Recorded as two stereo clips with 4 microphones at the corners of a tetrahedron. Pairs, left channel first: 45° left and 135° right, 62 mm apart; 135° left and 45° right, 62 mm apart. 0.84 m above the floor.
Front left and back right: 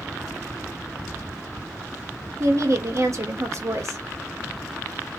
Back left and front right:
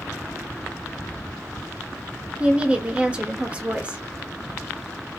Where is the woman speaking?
110° right, 1.1 m.